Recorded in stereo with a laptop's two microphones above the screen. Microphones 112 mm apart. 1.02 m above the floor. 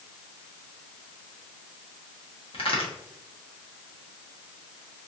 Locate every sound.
2.5 s a crack: 60° left (ahead or behind), 1.0 m